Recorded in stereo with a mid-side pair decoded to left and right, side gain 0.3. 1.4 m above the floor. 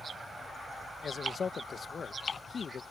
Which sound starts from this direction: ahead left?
A man speaking, at 1.0 s.